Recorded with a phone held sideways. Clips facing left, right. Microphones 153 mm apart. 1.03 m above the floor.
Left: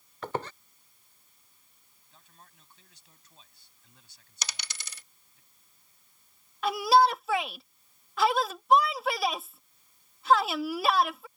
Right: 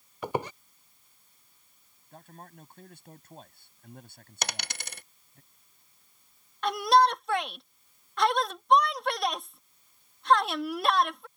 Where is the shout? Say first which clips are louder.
Even; 5° left (ahead or behind).